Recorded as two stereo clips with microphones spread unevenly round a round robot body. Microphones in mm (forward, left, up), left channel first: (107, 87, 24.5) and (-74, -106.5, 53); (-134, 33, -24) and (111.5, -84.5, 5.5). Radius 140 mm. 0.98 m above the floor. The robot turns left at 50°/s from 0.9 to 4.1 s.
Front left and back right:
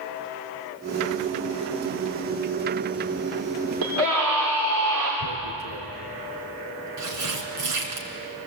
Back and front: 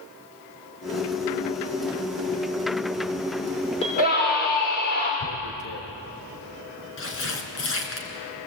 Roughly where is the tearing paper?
Behind.